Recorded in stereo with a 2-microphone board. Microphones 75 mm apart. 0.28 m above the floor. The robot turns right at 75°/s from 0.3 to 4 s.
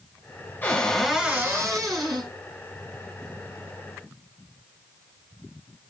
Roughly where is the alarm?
No alarm in this recording.